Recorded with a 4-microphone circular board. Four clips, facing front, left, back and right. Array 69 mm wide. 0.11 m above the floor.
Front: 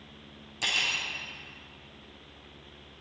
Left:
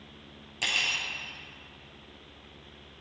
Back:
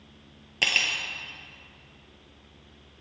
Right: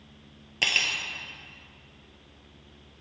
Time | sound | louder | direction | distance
0.6 | cutlery clinking | right 3 dB, back 4 dB | 145° right | 1.3 m